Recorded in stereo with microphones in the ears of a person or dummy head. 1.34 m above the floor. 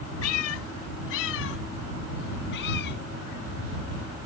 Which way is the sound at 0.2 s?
80° left.